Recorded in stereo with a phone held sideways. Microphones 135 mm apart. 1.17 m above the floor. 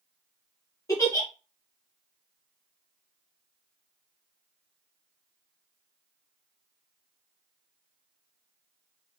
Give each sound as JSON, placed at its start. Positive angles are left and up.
{"t": 0.9, "sound": "a giggle", "side_deg": 25, "distance_m": 1.6}